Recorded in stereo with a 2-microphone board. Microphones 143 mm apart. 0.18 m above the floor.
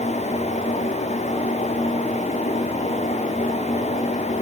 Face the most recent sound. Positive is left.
No sound to turn to.